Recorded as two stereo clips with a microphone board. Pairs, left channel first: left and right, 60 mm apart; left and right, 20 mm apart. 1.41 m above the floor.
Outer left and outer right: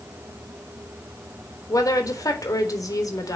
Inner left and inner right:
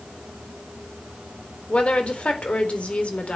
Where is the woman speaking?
80° left, 4 m.